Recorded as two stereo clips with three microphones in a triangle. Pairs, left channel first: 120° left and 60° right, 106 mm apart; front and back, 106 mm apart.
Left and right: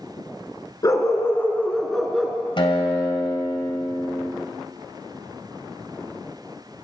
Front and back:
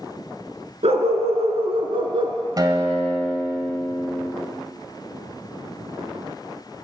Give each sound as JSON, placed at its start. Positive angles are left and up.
{"t": 0.8, "sound": "a dog barking", "azimuth_deg": 175, "distance_m": 1.5}
{"t": 2.6, "sound": "a guitar", "azimuth_deg": 140, "distance_m": 1.9}